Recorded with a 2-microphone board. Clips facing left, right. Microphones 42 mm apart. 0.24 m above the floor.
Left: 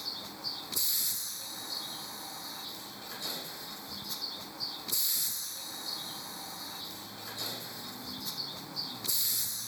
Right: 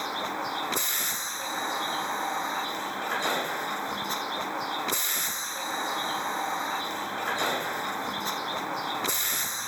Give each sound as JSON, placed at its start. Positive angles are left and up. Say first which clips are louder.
{"t": 0.0, "sound": "a vehicle", "louder": "right 12 dB", "side_deg": -60}